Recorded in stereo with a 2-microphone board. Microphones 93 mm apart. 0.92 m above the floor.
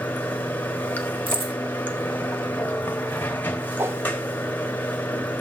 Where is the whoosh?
30° right (ahead or behind), 0.6 m.